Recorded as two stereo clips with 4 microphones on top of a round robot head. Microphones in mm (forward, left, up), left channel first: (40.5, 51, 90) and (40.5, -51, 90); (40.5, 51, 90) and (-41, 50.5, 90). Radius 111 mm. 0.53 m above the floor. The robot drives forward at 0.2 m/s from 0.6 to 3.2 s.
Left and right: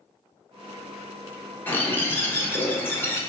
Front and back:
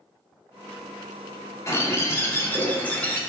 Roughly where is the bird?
Ahead left.